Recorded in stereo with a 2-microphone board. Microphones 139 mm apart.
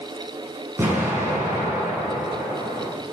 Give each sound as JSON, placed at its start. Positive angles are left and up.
{"t": 0.8, "sound": "an explosion", "side_deg": -20, "distance_m": 5.0}